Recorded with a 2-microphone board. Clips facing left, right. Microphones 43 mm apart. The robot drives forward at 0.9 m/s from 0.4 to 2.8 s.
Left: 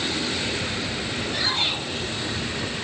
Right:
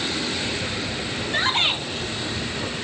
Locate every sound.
1.3 s a shout: 50° right (ahead or behind), 6 m; by 1.8 s 55° right (ahead or behind), 6 m